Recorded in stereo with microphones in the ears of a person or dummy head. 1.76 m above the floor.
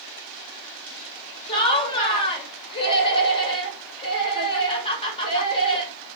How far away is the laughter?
About 2 m.